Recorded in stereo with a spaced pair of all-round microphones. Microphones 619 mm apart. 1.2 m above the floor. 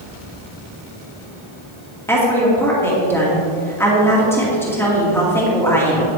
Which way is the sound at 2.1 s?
5° left (ahead or behind).